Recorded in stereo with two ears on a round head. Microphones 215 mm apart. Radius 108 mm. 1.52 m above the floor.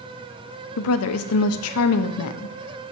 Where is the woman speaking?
70° left (ahead or behind), 0.6 m.